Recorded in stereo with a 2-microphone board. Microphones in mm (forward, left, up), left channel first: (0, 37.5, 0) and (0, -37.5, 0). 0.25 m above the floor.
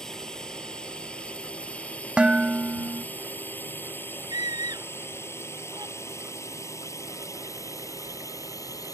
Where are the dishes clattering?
15° right (ahead or behind).